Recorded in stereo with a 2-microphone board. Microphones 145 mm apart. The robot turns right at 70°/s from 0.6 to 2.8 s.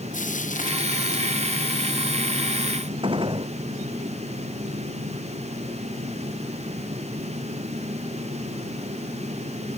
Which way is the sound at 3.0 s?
35° right (ahead or behind).